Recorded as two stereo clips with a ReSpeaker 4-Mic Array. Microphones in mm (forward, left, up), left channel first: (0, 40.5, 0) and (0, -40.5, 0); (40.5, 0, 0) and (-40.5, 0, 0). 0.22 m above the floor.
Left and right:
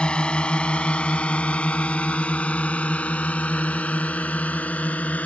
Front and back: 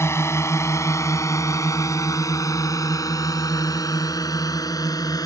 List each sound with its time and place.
0.0 s a drone: 20° left